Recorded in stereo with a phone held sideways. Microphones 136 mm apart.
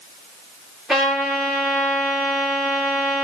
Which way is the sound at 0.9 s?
Centre (ahead or behind).